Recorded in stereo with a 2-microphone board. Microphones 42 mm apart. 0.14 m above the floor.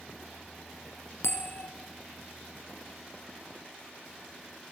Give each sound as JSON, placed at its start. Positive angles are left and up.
{"t": 1.2, "sound": "a bell", "side_deg": 75, "distance_m": 3.5}